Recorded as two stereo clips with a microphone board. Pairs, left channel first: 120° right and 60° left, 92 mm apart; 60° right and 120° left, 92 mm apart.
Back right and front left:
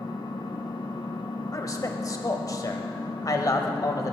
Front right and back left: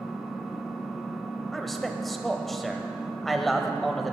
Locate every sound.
0.0 s an engine running: 150° right, 1.4 m
1.5 s a man speaking: 145° right, 1.3 m